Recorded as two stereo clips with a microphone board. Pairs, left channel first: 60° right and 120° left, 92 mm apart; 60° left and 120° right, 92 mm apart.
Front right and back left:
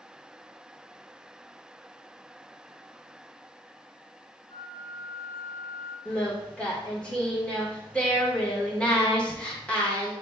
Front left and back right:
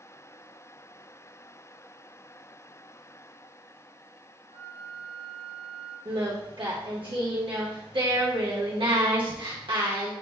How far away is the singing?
About 1.1 m.